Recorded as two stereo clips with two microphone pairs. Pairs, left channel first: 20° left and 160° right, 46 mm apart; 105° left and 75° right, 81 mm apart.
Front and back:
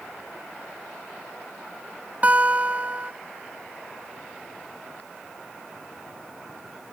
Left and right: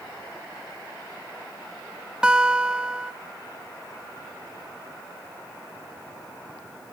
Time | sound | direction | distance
2.2 | a guitar | 145° right | 0.9 m